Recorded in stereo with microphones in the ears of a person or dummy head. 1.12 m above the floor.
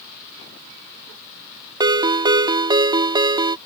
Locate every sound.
1.8 s a ringtone: 25° right (ahead or behind)